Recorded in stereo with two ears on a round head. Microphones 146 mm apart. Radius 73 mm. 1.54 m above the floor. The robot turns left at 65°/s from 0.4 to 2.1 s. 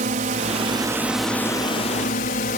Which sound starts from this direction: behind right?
A drone, at 0.0 s.